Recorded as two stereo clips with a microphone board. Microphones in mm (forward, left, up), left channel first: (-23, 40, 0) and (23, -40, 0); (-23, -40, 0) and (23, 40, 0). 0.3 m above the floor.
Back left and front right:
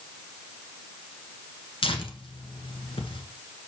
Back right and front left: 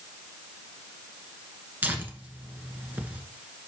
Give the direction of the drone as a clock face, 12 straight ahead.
No drone in this recording.